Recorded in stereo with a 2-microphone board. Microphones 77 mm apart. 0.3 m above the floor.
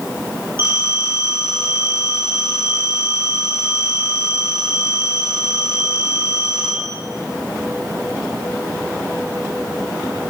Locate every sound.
0.6 s a phone ringing: 30° right (ahead or behind), 3 m